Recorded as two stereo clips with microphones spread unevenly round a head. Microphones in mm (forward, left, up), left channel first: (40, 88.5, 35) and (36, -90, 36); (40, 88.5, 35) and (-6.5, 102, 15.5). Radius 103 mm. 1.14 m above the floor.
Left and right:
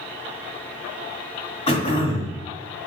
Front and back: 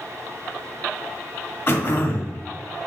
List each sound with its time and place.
1.7 s throat clearing: 30° left, 1.7 m